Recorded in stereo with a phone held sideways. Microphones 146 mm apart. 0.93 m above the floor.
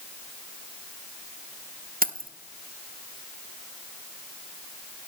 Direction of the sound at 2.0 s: 75° right (ahead or behind).